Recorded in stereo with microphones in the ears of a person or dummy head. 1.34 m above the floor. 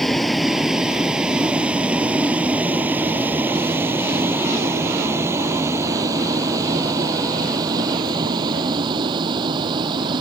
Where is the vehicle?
Centre (ahead or behind); by 10.2 s 25° right (ahead or behind).